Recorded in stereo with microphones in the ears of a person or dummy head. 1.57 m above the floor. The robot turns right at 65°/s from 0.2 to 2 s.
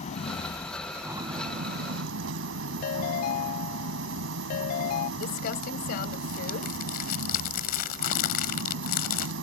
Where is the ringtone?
50° left (ahead or behind).